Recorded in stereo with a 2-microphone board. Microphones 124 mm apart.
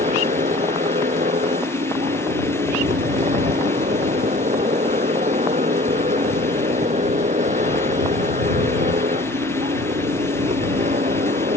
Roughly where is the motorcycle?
Right.